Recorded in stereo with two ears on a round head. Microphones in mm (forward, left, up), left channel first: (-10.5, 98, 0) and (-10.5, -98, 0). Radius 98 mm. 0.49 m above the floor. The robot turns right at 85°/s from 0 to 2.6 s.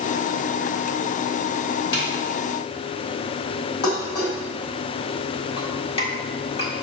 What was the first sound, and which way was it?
A snare drum, 20° left (ahead or behind).